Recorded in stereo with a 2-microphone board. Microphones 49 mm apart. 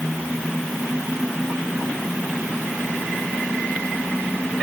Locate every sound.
Only background noise.